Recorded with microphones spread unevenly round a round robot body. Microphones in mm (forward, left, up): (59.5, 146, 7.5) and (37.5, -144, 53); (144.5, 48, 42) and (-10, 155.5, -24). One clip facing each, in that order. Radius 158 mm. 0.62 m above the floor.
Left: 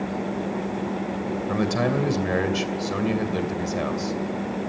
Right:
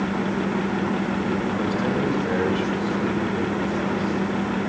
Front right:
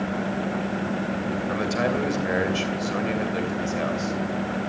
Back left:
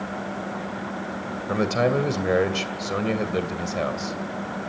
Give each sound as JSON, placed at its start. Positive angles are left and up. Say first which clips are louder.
{"t": 1.5, "sound": "a man speaking", "louder": "even, back left 5 dB", "azimuth_deg": 110, "distance_m": 2.5}